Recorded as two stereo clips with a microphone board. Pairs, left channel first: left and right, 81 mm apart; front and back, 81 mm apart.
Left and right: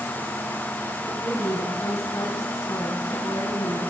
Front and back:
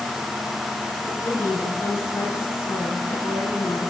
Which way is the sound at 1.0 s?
60° left.